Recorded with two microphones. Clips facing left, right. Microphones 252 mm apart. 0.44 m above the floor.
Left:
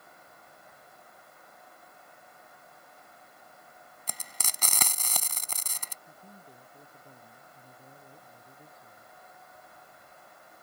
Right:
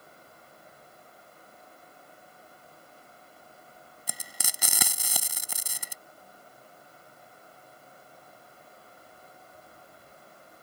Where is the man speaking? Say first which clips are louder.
Left 1 dB; 85° left.